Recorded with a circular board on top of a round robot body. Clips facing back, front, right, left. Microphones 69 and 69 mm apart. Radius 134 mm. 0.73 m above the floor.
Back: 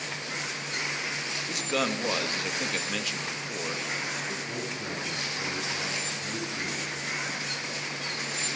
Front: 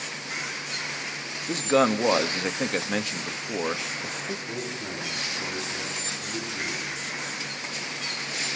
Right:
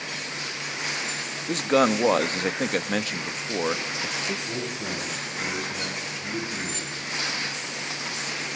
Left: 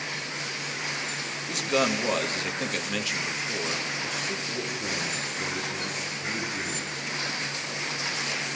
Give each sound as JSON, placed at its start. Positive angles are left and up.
{"t": 1.5, "sound": "a man speaking", "azimuth_deg": -45, "distance_m": 1.2}
{"t": 4.5, "sound": "a man speaking", "azimuth_deg": -105, "distance_m": 10.0}